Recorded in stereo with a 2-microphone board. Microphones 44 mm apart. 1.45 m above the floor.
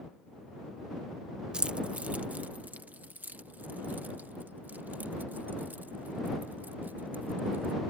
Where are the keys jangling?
20° right (ahead or behind); by 7.7 s 45° right (ahead or behind).